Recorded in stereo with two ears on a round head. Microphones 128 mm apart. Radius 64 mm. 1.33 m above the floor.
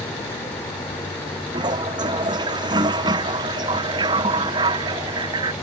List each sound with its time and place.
1.5 s a toilet flushing: 30° right (ahead or behind)